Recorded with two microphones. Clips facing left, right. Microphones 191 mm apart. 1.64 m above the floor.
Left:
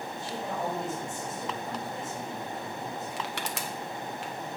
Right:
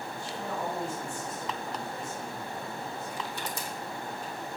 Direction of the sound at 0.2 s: 20° left (ahead or behind).